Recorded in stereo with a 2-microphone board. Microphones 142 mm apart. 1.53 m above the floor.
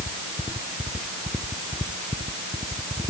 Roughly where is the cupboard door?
I don't hear a cupboard door.